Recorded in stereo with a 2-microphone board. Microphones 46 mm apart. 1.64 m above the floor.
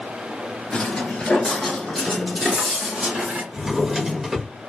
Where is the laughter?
I don't hear laughter.